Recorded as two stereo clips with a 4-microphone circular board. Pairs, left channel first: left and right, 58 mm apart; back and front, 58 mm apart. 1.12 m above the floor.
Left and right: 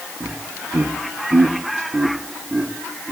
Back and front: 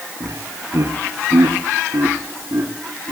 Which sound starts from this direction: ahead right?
Laughter, at 0.2 s.